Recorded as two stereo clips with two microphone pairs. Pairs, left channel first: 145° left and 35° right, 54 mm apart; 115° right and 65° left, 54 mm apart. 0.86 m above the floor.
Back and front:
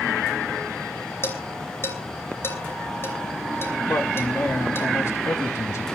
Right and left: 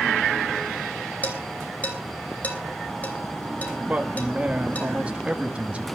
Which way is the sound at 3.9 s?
130° left.